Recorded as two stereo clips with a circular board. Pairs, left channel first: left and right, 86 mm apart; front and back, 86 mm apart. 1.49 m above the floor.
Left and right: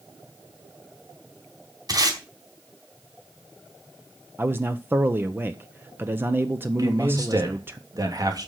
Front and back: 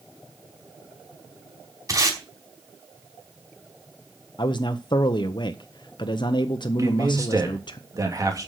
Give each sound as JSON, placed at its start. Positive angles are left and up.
{"t": 1.9, "sound": "tape being pulled", "azimuth_deg": -130, "distance_m": 4.5}
{"t": 4.4, "sound": "a man speaking", "azimuth_deg": -25, "distance_m": 0.9}
{"t": 6.8, "sound": "a man speaking", "azimuth_deg": -130, "distance_m": 3.0}